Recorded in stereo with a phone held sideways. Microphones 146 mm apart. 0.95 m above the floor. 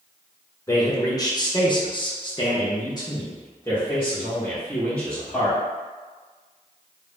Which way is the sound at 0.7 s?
20° left (ahead or behind).